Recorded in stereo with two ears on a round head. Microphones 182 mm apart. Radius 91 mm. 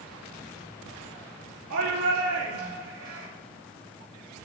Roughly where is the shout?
Right.